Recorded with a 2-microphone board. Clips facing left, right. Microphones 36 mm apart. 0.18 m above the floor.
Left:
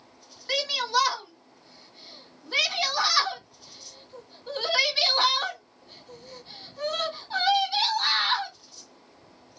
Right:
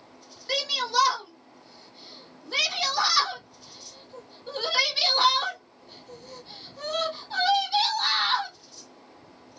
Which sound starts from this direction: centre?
A shout, at 0.5 s.